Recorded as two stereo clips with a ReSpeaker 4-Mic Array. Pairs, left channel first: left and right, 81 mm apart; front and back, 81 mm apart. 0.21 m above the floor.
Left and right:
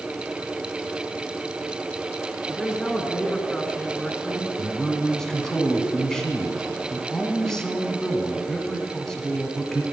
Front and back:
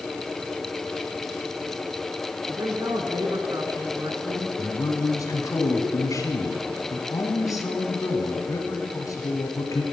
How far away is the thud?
I don't hear a thud.